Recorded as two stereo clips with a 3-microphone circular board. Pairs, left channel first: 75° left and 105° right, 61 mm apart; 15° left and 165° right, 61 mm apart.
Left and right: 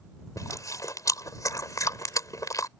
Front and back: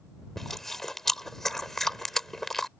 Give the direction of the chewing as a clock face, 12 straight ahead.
9 o'clock.